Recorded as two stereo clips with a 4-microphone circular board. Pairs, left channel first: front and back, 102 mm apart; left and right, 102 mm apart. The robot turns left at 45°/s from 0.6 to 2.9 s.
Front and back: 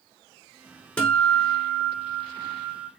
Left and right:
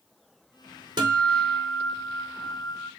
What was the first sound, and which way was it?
A guitar, 75° right.